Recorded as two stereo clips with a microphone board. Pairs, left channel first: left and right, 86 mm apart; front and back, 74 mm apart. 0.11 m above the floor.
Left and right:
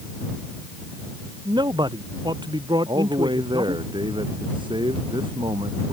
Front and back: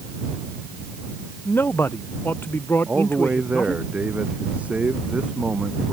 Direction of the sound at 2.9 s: 105° right.